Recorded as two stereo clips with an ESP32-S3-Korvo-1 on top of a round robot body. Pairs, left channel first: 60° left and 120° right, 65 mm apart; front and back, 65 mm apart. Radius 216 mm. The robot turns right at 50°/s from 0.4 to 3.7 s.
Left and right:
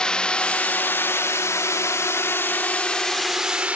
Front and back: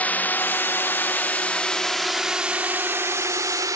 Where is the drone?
5° left; by 3.8 s 175° left.